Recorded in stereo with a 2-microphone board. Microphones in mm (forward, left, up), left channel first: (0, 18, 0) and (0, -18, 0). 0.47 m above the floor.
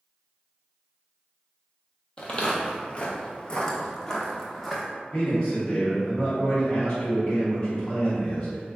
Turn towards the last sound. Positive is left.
turn(degrees=25)  # may be behind; listen again after turning